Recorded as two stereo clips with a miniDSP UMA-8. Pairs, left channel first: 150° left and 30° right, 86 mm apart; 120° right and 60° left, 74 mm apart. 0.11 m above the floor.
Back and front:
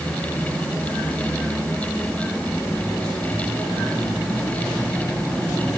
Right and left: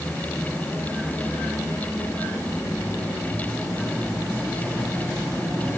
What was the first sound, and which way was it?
Only background noise.